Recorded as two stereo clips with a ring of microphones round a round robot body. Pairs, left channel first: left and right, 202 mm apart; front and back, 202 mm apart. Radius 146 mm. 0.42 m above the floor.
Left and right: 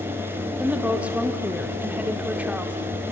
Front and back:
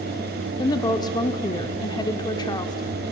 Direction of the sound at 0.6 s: 20° right.